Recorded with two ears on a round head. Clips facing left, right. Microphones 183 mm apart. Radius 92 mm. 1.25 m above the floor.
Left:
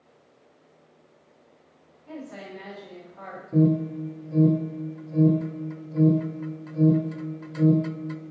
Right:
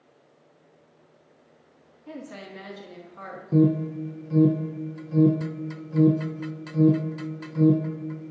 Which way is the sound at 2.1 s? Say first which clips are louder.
Left 1 dB; 60° right (ahead or behind).